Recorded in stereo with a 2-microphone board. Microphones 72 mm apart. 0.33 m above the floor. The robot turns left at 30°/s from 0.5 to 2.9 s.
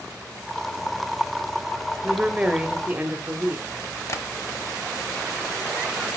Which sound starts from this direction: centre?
A woman speaking, at 2.0 s.